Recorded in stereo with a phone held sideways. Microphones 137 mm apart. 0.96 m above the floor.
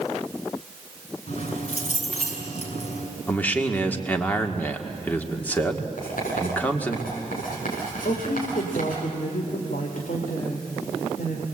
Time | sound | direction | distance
1.3 | keys jangling | 55° left (ahead or behind) | 5.5 m
3.3 | a man speaking | 10° left (ahead or behind) | 2 m
6.0 | writing | 85° left | 7 m
8.1 | a woman speaking | 75° left (ahead or behind) | 2.5 m